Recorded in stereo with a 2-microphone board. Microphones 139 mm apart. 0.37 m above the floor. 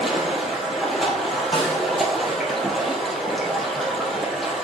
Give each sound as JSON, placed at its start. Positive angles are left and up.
{"t": 0.0, "sound": "running water", "side_deg": 0, "distance_m": 1.8}
{"t": 1.5, "sound": "a snare drum", "side_deg": 40, "distance_m": 3.5}